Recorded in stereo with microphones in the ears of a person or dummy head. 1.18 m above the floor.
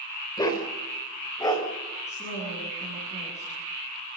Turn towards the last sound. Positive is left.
turn(degrees=35)  # may be behind; listen again after turning